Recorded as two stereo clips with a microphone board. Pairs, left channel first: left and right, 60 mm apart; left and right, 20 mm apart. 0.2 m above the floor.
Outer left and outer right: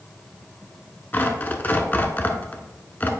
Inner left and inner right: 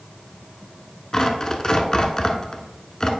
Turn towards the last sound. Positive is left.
turn(degrees=25)  # may be behind; listen again after turning